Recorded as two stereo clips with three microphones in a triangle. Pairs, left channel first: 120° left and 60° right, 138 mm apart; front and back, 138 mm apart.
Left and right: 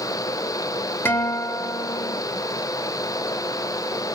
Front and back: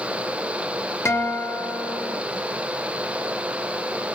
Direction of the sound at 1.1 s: 55° left.